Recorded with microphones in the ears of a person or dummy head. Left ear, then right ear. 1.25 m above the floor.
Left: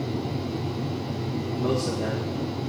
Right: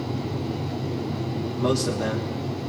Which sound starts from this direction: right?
A man speaking, at 1.6 s.